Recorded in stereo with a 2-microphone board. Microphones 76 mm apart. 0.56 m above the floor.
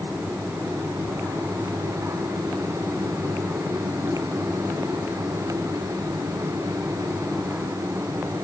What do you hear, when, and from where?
Only background noise.